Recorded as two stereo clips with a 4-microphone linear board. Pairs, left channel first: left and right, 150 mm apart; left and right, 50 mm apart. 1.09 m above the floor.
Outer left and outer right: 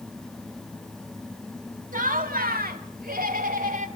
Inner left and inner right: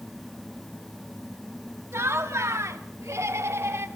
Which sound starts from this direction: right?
Laughter, at 1.9 s.